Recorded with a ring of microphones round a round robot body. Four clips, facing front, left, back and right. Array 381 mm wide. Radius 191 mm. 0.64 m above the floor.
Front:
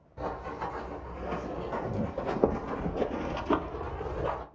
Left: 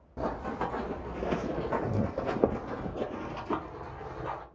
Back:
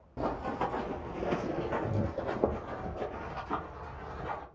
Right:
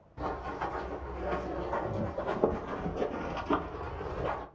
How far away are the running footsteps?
About 1.3 m.